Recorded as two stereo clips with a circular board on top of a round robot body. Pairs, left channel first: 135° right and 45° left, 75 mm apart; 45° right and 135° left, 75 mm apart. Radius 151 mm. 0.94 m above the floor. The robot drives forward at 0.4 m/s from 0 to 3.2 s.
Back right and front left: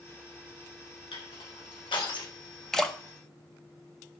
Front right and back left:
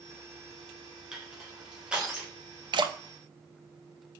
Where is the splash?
140° left, 1.0 m; by 3.0 s 145° left, 1.1 m.